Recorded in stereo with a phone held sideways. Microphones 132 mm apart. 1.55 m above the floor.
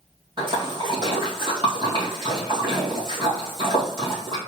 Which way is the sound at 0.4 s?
40° right (ahead or behind).